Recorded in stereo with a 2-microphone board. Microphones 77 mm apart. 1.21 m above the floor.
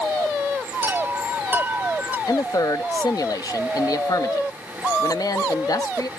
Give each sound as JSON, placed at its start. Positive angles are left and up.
{"t": 0.8, "sound": "a chime", "side_deg": -25}
{"t": 2.3, "sound": "a man speaking", "side_deg": 55}